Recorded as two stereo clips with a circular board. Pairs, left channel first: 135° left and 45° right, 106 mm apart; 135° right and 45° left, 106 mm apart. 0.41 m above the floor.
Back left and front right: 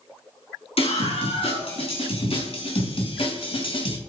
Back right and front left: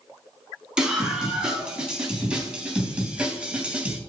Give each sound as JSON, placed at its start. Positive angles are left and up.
{"t": 0.8, "sound": "a scream", "azimuth_deg": 125, "distance_m": 4.0}